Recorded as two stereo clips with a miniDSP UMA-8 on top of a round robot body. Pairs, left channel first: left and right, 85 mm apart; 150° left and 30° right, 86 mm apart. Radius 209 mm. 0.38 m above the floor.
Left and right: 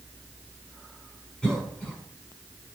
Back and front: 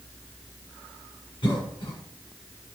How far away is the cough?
About 6.5 m.